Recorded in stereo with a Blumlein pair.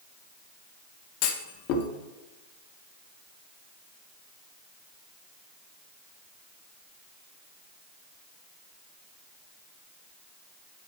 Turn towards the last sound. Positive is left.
turn(degrees=45)